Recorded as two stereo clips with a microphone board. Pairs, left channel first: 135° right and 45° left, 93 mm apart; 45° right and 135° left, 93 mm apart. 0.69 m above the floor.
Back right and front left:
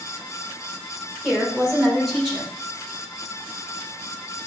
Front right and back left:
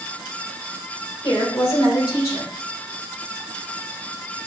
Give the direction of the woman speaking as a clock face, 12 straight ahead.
2 o'clock.